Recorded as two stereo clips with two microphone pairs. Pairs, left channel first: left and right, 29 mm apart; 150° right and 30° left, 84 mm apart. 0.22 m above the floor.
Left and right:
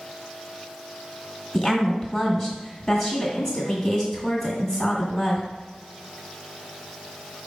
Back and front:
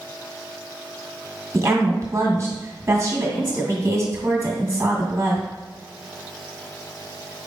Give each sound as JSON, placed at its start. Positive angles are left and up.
{"t": 1.5, "sound": "a woman speaking", "azimuth_deg": 30, "distance_m": 1.5}